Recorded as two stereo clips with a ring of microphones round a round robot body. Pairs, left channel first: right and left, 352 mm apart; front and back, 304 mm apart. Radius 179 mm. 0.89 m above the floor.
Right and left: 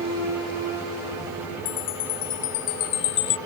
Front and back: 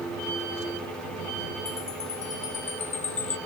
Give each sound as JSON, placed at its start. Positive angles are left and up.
{"t": 1.6, "sound": "a chime", "azimuth_deg": -70}